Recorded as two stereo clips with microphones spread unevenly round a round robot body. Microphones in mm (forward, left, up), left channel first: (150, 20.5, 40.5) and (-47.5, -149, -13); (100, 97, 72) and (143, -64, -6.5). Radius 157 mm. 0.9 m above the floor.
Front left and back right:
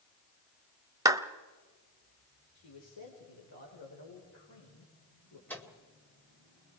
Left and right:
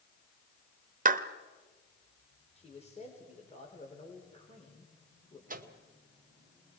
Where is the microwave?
45° right, 2 m.